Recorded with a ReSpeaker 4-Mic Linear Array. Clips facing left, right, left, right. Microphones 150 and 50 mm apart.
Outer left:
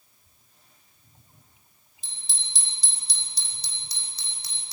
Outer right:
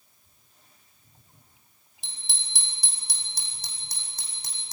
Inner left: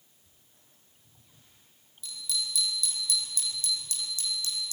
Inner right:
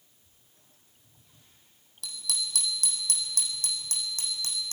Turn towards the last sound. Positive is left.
turn(degrees=-45)  # may be behind; listen again after turning